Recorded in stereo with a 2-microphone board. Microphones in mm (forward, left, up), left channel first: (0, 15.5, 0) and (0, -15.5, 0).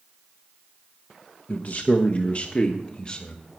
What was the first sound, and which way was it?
A man speaking, 55° left (ahead or behind).